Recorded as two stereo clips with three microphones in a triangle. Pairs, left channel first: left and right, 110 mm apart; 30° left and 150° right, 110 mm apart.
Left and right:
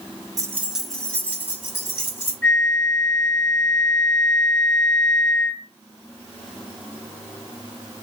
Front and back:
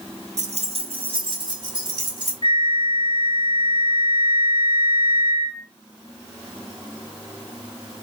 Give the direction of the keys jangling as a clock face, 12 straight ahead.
5 o'clock.